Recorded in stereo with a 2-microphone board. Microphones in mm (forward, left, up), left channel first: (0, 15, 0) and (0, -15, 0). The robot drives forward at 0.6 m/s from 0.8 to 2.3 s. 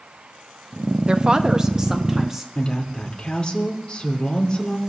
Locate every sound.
1.1 s a woman speaking: 40° right (ahead or behind), 0.5 m; by 2.5 s 15° right (ahead or behind), 1.1 m
2.5 s a woman speaking: 35° left (ahead or behind), 2 m